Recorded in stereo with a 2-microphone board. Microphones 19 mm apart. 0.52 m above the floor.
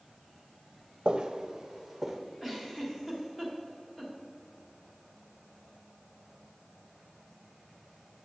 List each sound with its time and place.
1.1 s footsteps: 45° right (ahead or behind), 0.8 m; by 2.2 s 20° right (ahead or behind), 1.3 m
2.4 s a giggle: 5° left (ahead or behind), 1.9 m